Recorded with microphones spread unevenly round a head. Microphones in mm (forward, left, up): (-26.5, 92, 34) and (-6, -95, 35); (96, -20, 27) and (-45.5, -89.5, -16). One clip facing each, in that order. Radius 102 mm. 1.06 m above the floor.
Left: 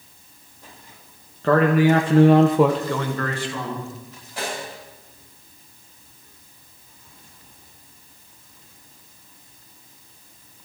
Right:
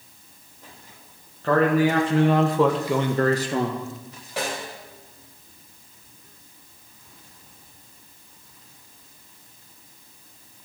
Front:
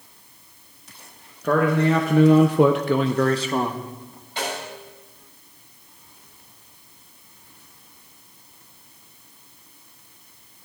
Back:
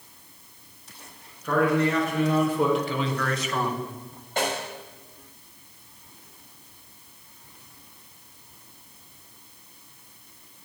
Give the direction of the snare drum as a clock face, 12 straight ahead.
4 o'clock.